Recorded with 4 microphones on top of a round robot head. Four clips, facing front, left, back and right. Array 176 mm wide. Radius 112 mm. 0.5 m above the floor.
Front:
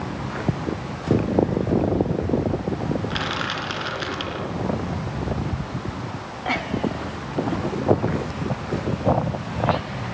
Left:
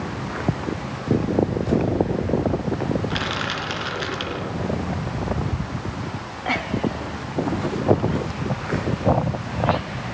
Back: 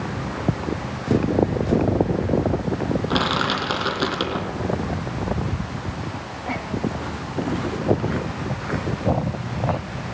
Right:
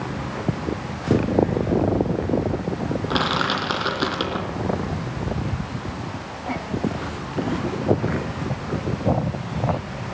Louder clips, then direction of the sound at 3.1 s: Right 4 dB, back 5 dB; 135° right.